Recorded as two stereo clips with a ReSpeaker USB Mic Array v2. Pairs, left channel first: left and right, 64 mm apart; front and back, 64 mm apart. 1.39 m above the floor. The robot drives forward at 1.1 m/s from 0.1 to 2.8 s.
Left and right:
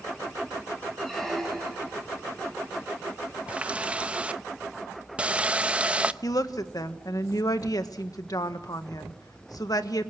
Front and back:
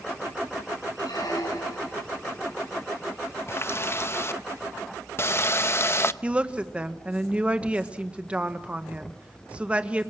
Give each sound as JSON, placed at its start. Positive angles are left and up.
{"t": 1.0, "sound": "a squeak", "azimuth_deg": 5, "distance_m": 7.5}
{"t": 3.5, "sound": "a running tap", "azimuth_deg": -25, "distance_m": 0.8}
{"t": 6.2, "sound": "a woman speaking", "azimuth_deg": 110, "distance_m": 1.6}